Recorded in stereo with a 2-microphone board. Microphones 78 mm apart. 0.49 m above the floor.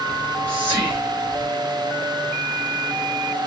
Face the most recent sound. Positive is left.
turn(degrees=-25)  # may be behind; listen again after turning